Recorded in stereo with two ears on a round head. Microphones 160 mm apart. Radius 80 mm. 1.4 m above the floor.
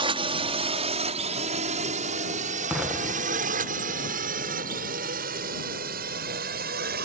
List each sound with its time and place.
0.0 s a drone: 30° right (ahead or behind); by 7.0 s 60° right (ahead or behind)
2.7 s an explosion: 5° right (ahead or behind)